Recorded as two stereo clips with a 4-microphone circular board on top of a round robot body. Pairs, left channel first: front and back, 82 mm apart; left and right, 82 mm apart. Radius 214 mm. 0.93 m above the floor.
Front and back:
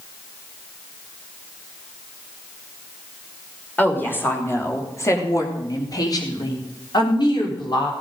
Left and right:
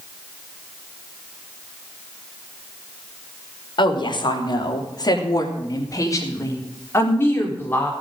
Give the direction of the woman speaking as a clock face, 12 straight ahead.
10 o'clock.